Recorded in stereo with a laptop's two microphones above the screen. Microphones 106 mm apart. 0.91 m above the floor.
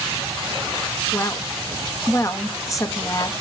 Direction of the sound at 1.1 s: 30° left (ahead or behind).